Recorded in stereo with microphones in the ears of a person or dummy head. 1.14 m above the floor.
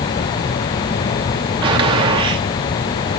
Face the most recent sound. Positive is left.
turn(degrees=-20)  # may be behind; listen again after turning